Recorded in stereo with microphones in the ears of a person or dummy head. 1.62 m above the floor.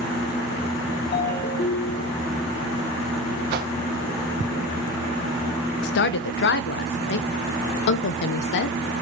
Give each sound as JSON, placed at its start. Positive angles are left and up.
{"t": 1.1, "sound": "a ringtone", "side_deg": 55, "distance_m": 2.0}
{"t": 3.5, "sound": "a whoosh", "side_deg": -55, "distance_m": 1.1}
{"t": 5.8, "sound": "a woman speaking", "side_deg": 65, "distance_m": 0.8}